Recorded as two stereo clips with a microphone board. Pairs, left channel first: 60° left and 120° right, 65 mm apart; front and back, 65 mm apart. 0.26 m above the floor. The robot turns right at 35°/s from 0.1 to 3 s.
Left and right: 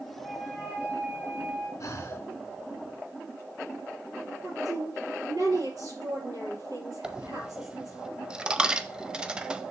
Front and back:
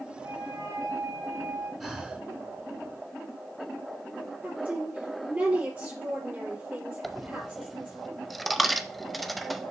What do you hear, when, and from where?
0.2 s a flute: 155° left, 3.5 m; by 1.7 s 150° right, 3.5 m
1.8 s breathing: 95° left, 1.0 m; by 2.3 s 115° left, 1.0 m
4.4 s a woman speaking: 110° right, 5.5 m
7.0 s a dropped coin: 85° right, 0.5 m